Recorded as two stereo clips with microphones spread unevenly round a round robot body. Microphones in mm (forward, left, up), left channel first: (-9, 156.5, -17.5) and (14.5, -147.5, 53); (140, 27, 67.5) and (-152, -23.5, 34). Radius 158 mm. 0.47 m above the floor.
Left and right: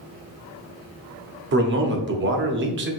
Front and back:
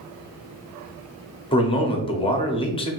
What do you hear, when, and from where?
1.5 s a man speaking: 55° right, 0.8 m